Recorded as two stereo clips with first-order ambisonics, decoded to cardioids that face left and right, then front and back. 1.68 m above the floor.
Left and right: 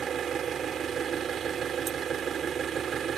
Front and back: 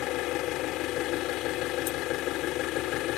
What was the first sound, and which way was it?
An engine running, 30° right.